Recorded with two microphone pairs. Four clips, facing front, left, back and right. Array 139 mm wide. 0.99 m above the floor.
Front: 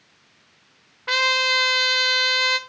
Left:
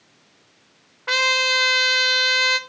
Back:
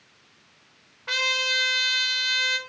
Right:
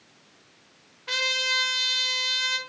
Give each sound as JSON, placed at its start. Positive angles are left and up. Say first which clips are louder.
{"t": 1.1, "sound": "a trumpet", "louder": "left 9 dB, front 7 dB", "azimuth_deg": 70, "distance_m": 1.6}